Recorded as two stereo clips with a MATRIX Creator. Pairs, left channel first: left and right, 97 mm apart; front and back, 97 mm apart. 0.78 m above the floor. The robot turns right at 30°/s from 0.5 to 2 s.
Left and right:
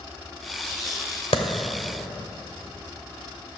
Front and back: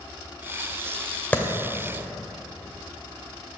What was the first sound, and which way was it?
A clap, 75° left.